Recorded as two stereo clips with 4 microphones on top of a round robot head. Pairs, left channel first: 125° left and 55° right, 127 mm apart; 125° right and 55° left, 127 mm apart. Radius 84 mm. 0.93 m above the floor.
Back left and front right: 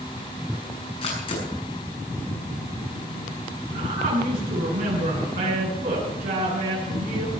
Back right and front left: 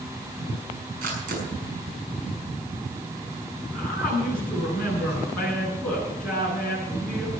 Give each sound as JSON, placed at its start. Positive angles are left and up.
{"t": 1.0, "sound": "a camera shutter", "azimuth_deg": 75, "distance_m": 6.5}
{"t": 3.7, "sound": "a woman speaking", "azimuth_deg": -40, "distance_m": 9.0}